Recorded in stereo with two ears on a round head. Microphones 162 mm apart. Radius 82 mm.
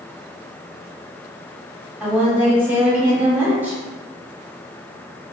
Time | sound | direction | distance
2.0 | a woman speaking | 10° right (ahead or behind) | 1.0 m